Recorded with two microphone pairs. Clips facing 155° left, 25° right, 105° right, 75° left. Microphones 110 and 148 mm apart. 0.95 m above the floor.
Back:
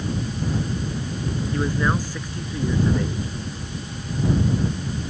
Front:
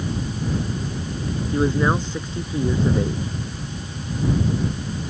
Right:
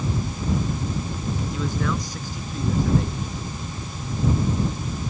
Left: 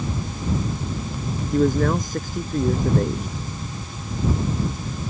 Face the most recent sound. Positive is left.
turn(degrees=40)